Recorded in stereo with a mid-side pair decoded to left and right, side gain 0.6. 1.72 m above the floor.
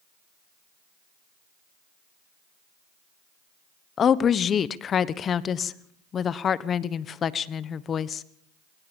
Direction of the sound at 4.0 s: 40° left.